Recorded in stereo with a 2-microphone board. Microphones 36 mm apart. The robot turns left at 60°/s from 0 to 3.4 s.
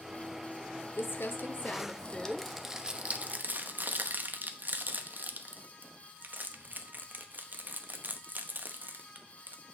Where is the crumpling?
90° left, 0.8 m; by 9.6 s 55° right (ahead or behind), 0.8 m.